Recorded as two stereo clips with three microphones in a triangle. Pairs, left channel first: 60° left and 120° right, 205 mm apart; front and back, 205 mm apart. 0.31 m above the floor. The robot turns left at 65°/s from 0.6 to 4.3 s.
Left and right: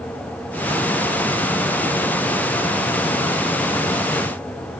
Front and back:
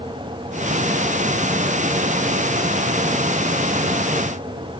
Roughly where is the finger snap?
No finger snap in this recording.